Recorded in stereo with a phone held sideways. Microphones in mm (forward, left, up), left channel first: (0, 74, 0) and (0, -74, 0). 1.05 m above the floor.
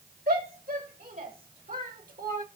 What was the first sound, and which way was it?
A shout, 75° right (ahead or behind).